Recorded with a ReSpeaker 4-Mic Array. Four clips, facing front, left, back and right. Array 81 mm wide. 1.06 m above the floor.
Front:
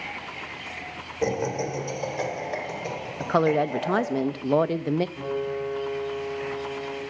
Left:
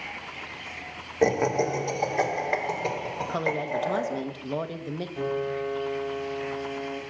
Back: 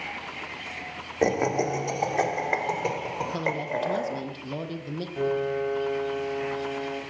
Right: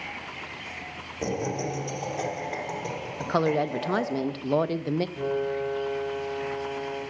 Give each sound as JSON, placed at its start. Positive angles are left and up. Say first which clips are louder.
{"t": 1.2, "sound": "laughter", "louder": "left 7 dB, back 3 dB", "azimuth_deg": 140, "distance_m": 2.5}
{"t": 3.2, "sound": "a woman speaking", "louder": "right 6 dB, front 11 dB", "azimuth_deg": -20, "distance_m": 0.5}
{"t": 5.2, "sound": "a piano", "louder": "right 1 dB, back 3 dB", "azimuth_deg": 170, "distance_m": 5.0}